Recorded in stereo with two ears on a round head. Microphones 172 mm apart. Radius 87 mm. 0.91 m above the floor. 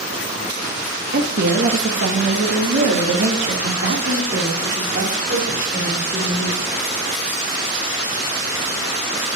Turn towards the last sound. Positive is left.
turn(degrees=-50)  # may be behind; listen again after turning